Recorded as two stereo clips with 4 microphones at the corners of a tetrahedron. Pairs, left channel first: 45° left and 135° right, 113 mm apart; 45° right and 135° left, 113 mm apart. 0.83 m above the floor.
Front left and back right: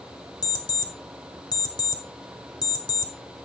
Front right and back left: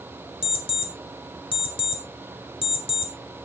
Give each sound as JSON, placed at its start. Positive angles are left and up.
{"t": 0.4, "sound": "an alarm clock", "azimuth_deg": -5, "distance_m": 1.8}